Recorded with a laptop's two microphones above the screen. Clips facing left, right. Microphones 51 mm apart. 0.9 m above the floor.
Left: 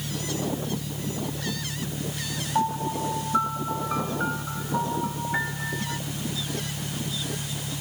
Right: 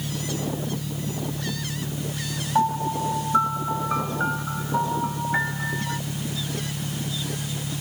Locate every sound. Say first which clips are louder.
0.0 s an engine running: right 1 dB; 65° right (ahead or behind)
2.5 s a piano: right 3 dB; 15° right (ahead or behind)